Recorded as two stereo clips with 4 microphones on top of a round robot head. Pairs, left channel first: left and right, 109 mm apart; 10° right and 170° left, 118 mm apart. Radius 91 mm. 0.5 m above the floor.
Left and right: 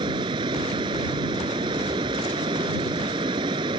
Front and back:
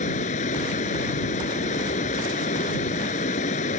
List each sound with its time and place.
0.0 s running water: 35° right